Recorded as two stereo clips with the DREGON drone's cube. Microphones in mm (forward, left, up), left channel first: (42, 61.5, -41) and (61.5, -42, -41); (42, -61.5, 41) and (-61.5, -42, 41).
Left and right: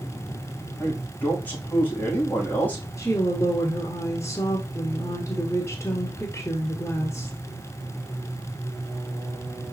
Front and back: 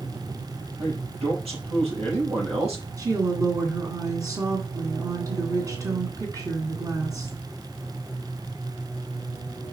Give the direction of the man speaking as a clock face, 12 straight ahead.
6 o'clock.